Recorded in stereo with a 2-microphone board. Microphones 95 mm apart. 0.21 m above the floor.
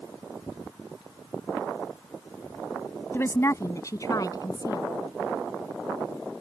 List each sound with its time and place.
3.1 s a woman speaking: 25° left (ahead or behind); by 4.9 s 40° left (ahead or behind)